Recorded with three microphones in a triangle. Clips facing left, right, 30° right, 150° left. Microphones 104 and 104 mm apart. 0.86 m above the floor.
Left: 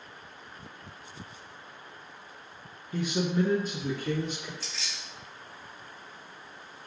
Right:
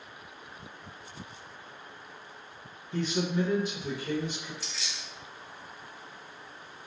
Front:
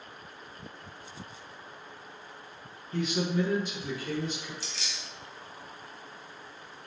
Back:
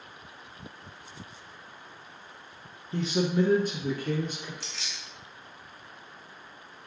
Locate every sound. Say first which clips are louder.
2.9 s a man speaking: left 1 dB, back 3 dB; 165° left, 0.7 m; by 4.5 s 110° left, 1.6 m
4.6 s keys jangling: even, front 1 dB; straight behind, 1.4 m